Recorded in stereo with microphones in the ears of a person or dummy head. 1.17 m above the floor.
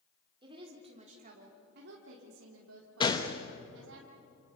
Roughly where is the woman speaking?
Right.